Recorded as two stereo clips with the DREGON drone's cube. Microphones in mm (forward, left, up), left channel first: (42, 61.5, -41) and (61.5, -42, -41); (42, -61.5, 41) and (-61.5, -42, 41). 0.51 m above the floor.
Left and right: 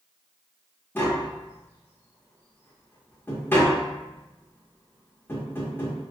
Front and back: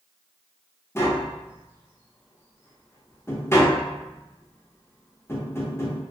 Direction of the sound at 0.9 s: 40° left.